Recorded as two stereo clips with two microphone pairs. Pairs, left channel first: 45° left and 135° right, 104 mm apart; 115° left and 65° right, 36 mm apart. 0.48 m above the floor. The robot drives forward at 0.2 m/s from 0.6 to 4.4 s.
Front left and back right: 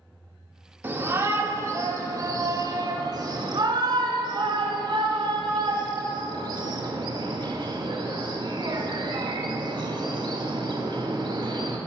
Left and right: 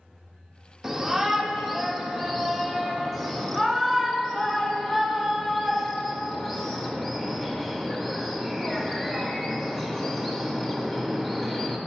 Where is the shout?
120° right, 0.8 m; by 11.8 s 165° right, 1.1 m.